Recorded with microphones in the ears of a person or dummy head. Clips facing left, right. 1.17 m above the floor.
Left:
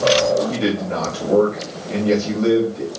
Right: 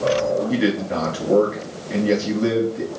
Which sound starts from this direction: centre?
A man speaking, at 0.5 s.